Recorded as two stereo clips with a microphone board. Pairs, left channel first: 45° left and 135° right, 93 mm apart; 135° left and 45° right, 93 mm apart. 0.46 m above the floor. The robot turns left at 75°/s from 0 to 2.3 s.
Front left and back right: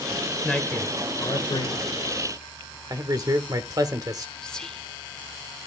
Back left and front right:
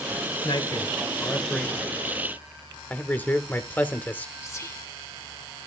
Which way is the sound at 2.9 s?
160° right.